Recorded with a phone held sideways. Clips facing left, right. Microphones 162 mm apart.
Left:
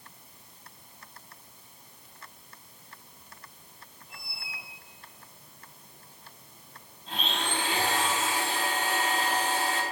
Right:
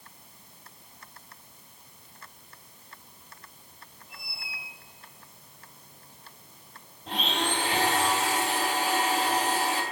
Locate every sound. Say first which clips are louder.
4.1 s a squeak: even; 5° right (ahead or behind), 3 m
7.1 s a blender: right 4 dB; 85° right, 2.5 m